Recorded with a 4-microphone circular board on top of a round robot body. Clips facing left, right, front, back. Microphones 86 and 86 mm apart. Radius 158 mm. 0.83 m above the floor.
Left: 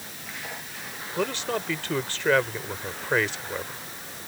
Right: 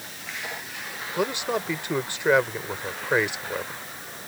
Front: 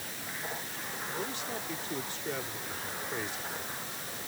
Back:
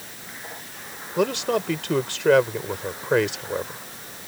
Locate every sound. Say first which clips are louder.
1.2 s a man speaking: right 2 dB, back 18 dB; 165° right